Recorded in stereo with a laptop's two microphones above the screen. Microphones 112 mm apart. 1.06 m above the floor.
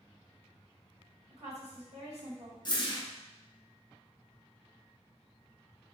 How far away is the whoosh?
About 0.5 m.